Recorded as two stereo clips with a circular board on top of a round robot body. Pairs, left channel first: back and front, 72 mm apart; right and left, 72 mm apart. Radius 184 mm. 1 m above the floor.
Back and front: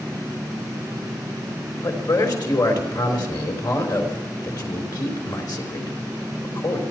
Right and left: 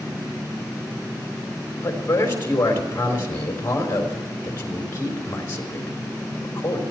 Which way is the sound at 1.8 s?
150° right.